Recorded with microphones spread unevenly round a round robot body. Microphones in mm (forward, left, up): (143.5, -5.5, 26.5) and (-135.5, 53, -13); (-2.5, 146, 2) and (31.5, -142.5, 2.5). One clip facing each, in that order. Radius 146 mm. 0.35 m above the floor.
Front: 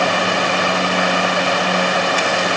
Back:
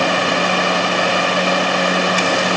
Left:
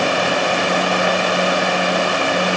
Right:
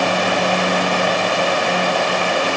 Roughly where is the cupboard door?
I don't hear a cupboard door.